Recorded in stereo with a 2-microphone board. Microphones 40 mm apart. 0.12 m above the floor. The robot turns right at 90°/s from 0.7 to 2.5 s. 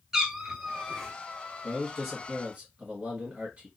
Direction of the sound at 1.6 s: 10° left (ahead or behind).